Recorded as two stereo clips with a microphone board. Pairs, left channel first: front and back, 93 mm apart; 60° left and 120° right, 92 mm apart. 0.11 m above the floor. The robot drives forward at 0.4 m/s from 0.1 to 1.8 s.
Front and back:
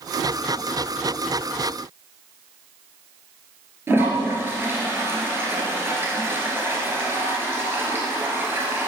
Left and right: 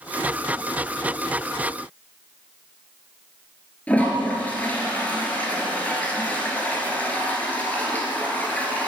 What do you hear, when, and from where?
3.9 s a toilet flushing: 125° left, 1.8 m